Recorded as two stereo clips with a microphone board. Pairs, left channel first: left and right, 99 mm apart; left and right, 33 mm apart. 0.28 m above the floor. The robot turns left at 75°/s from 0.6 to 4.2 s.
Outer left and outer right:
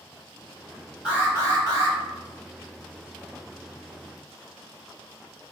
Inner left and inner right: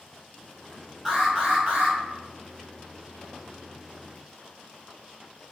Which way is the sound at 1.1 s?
15° right.